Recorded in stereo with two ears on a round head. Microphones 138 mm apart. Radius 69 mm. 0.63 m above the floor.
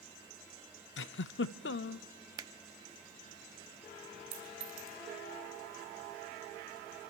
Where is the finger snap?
25° right (ahead or behind), 0.6 m.